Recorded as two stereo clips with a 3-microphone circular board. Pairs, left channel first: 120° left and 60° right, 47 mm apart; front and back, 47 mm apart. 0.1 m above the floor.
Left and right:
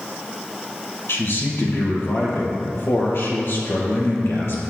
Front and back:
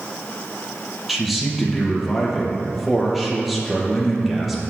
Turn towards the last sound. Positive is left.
turn(degrees=90)